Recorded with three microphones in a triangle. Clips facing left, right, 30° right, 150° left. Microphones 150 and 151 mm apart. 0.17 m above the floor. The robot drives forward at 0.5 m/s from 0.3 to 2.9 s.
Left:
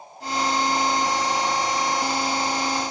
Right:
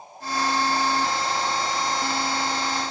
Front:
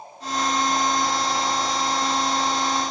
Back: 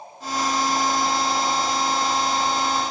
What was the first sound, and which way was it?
Only background noise.